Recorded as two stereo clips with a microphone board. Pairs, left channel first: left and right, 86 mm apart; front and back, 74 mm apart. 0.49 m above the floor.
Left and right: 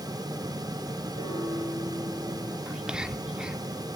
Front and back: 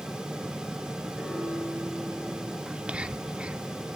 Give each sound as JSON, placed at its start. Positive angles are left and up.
{"t": 1.1, "sound": "a piano", "azimuth_deg": -90, "distance_m": 7.5}
{"t": 2.7, "sound": "whispering", "azimuth_deg": -150, "distance_m": 0.7}